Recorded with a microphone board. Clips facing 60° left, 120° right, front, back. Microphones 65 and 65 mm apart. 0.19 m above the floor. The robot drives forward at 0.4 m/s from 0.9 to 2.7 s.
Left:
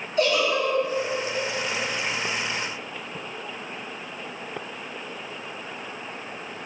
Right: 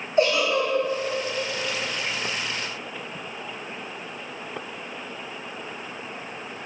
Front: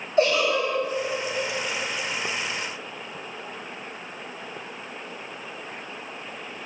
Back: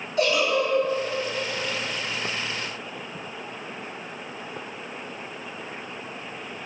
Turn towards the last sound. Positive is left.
turn(degrees=-115)